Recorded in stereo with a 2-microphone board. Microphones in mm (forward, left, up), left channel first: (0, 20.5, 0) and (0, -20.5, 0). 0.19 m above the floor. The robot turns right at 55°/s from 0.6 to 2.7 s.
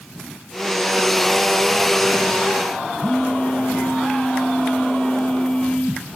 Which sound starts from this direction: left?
A phone buzzing, at 3.0 s.